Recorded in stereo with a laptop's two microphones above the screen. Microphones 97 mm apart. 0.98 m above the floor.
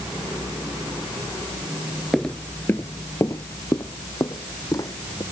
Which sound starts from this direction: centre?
Footsteps, at 2.1 s.